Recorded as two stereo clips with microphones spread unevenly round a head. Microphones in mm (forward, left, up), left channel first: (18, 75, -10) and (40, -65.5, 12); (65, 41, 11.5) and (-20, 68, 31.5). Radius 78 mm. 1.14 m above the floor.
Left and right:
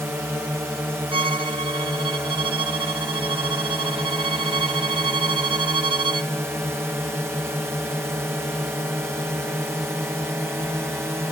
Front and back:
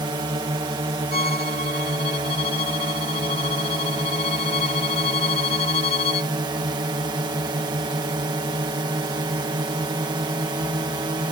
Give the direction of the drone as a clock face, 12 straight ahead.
5 o'clock.